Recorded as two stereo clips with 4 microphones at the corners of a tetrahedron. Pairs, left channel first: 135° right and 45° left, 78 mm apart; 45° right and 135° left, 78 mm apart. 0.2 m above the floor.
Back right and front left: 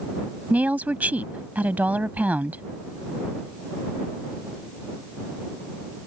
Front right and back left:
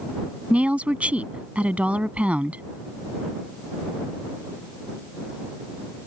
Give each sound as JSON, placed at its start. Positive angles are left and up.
{"t": 0.5, "sound": "a woman speaking", "azimuth_deg": 90}